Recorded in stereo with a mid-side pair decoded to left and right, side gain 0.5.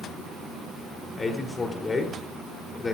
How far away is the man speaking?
About 4 m.